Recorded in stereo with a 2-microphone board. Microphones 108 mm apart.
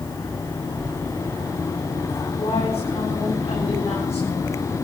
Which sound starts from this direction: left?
A woman speaking, at 2.4 s.